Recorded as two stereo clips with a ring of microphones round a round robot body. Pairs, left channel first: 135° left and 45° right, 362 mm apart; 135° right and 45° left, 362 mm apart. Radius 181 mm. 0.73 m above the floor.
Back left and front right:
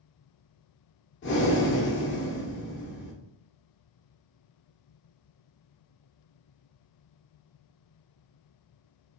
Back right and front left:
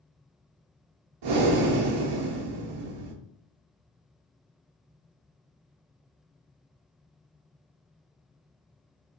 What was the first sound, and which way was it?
Breathing, 75° left.